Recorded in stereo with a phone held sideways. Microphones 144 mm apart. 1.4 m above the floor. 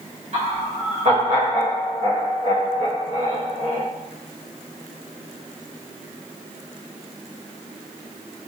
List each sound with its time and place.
0.3 s laughter: 50° right (ahead or behind), 1.2 m